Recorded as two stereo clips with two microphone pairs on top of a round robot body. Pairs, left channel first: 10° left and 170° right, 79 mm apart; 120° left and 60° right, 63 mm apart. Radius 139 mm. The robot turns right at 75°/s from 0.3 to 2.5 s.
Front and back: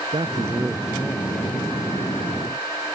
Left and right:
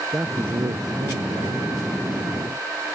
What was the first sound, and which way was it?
A man speaking, 125° right.